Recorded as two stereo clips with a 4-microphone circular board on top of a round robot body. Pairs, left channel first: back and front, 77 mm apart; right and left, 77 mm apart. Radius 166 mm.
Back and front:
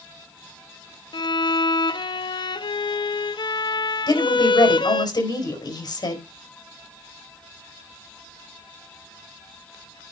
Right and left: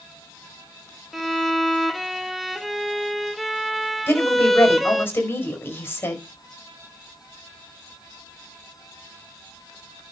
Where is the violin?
Straight behind, 1.1 m.